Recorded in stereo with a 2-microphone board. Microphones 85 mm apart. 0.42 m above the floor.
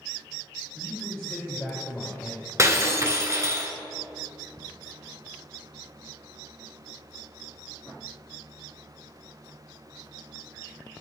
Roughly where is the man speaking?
Centre.